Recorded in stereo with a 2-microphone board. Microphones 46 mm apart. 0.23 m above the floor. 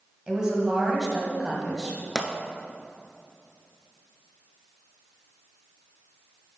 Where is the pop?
5° left (ahead or behind), 0.6 m.